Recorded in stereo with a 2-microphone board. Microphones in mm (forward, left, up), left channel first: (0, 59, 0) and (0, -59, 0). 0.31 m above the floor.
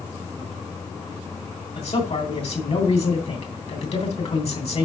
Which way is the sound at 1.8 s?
60° left (ahead or behind).